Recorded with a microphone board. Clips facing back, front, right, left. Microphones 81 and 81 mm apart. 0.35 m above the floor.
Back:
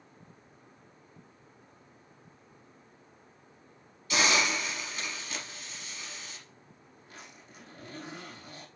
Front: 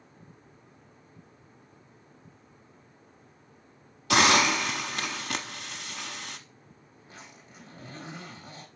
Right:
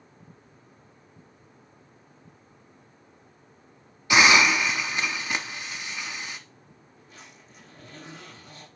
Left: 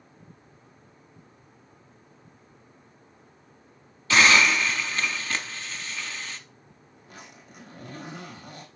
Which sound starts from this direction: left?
A zipper, at 7.0 s.